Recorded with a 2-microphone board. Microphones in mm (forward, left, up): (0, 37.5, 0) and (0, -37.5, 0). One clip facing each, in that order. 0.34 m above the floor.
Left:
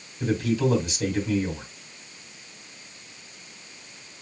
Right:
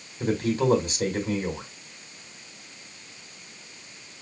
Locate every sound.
0.2 s a man speaking: 45° right (ahead or behind), 3 m